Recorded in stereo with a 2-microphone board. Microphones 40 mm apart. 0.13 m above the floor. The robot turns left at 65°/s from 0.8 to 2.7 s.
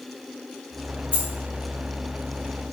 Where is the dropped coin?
30° left (ahead or behind), 0.8 m; by 1.3 s 20° left (ahead or behind), 0.8 m.